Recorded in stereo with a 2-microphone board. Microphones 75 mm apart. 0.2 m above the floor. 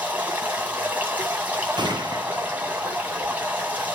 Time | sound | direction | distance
0.0 | running water | 20° right (ahead or behind) | 1.5 m
1.8 | a gunshot | 80° right | 0.6 m